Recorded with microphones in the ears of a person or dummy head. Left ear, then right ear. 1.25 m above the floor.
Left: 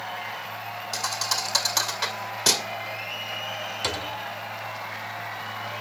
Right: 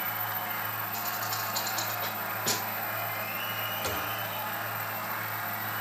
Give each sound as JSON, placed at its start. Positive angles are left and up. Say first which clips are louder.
{"t": 0.9, "sound": "a thud", "louder": "left 10 dB", "side_deg": 65, "distance_m": 2.0}
{"t": 3.8, "sound": "a thud", "louder": "left 3 dB", "side_deg": 20, "distance_m": 1.5}